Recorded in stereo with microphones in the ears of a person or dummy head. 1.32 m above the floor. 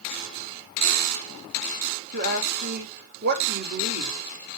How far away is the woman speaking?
About 2.5 m.